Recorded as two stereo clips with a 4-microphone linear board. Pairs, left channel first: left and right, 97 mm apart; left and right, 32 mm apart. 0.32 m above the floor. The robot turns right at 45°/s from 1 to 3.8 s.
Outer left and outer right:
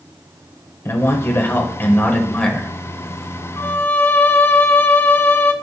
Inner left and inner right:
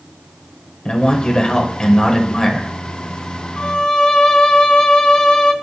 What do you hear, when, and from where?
0.8 s a man speaking: 25° left (ahead or behind), 1.4 m; by 2.7 s 5° left (ahead or behind), 1.4 m
3.6 s a violin: 30° left (ahead or behind), 0.8 m; by 5.5 s 25° left (ahead or behind), 0.8 m